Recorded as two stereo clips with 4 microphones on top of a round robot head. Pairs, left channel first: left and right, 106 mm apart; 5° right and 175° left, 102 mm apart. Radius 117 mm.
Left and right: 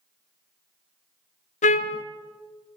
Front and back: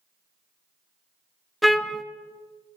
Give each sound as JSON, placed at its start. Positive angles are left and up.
{"t": 1.6, "sound": "a trumpet", "azimuth_deg": 85, "distance_m": 0.6}